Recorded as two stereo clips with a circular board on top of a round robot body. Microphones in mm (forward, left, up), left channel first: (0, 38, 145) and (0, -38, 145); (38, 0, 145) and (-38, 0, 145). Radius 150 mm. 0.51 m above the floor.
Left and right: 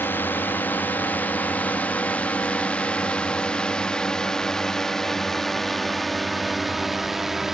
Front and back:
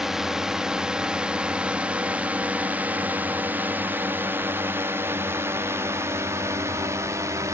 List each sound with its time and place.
0.0 s a drone: 105° left; by 7.5 s 175° right